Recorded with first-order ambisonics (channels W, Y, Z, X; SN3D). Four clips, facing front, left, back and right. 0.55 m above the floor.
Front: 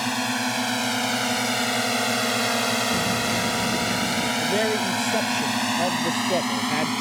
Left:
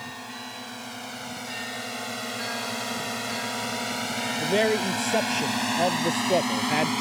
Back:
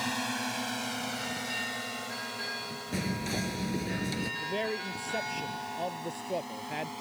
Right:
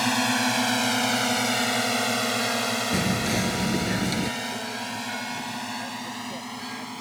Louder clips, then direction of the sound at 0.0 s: Right 14 dB, front 8 dB; 65° right.